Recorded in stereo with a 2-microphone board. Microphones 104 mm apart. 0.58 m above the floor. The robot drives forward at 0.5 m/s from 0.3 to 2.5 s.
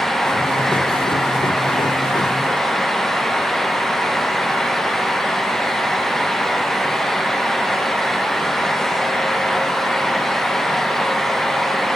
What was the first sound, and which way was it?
Only background noise.